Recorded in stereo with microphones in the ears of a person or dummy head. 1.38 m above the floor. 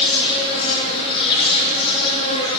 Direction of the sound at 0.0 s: 30° left (ahead or behind).